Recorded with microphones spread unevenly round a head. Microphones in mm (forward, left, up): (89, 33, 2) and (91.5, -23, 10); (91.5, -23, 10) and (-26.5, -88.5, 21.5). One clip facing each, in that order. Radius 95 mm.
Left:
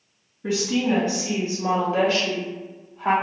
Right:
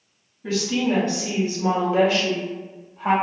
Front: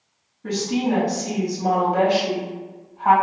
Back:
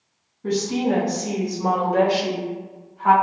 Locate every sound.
0.4 s a woman speaking: 160° left, 1.4 m; by 3.1 s 155° right, 2.5 m